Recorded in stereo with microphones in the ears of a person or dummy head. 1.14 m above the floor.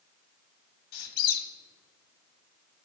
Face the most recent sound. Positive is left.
turn(degrees=60)  # may be behind; listen again after turning